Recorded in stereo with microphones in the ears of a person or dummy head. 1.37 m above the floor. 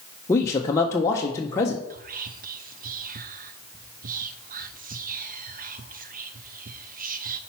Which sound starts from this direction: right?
Whispering, at 1.9 s.